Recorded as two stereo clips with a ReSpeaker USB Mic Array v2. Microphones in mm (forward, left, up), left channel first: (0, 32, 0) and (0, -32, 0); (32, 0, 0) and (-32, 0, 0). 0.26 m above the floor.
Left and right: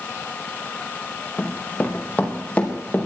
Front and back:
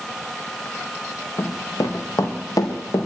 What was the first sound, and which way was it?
Running footsteps, 20° left.